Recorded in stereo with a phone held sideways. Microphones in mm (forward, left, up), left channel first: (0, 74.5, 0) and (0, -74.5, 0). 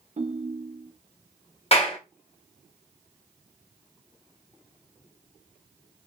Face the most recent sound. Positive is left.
turn(degrees=40)  # may be behind; listen again after turning